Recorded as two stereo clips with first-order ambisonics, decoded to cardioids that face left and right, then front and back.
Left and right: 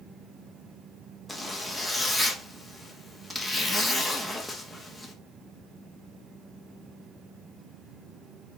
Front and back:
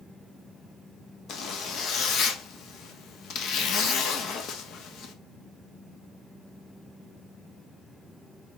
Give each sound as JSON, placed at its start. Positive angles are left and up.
{"t": 1.3, "sound": "a zipper", "azimuth_deg": 10, "distance_m": 0.6}